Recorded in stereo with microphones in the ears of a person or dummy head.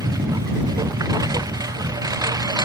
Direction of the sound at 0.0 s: 20° right (ahead or behind).